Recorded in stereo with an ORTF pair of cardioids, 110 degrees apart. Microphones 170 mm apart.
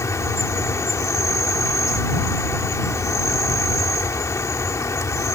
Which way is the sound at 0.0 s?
15° left.